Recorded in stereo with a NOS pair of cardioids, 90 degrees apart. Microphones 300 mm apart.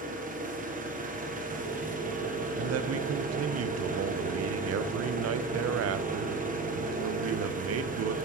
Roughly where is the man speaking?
Ahead right.